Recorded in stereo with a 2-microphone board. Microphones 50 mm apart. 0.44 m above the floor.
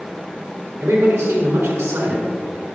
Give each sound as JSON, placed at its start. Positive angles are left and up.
{"t": 0.8, "sound": "a man speaking", "side_deg": -70, "distance_m": 3.5}